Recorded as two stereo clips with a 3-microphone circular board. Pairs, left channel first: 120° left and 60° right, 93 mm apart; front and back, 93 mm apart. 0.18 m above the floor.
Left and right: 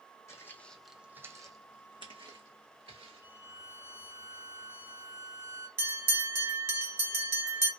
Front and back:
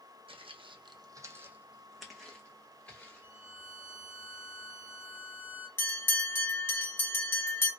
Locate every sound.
0.3 s footsteps: straight behind, 0.6 m; by 3.3 s 75° right, 1.5 m
3.2 s a violin: 100° right, 2.0 m
5.8 s a bell: 35° right, 0.8 m